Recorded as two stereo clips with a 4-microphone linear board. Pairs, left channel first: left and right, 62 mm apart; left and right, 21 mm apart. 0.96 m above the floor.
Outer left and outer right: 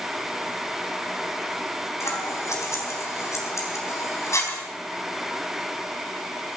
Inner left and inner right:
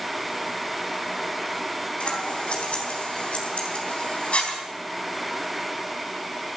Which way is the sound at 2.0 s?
55° left (ahead or behind).